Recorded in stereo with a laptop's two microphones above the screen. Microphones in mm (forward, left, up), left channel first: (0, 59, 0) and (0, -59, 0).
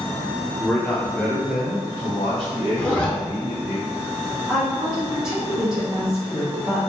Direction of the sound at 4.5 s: 5° right (ahead or behind).